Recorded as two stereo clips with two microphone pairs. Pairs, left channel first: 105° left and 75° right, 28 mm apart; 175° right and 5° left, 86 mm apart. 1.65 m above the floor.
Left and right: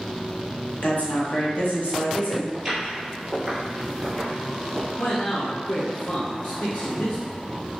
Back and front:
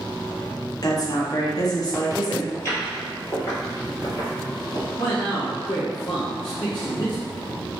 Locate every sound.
0.8 s a woman speaking: 140° left, 1.0 m
2.5 s footsteps: 140° right, 1.9 m; by 4.9 s 160° left, 2.5 m
5.0 s a man speaking: 140° left, 0.9 m